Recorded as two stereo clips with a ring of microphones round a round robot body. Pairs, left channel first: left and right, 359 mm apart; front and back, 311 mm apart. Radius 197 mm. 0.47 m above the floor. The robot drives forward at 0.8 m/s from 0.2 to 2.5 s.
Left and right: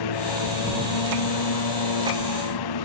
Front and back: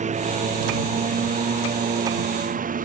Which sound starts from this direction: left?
A lawn mower, at 0.0 s.